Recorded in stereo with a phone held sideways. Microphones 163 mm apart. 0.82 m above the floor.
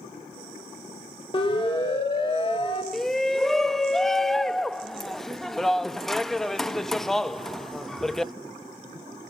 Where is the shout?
5° left (ahead or behind), 0.6 m.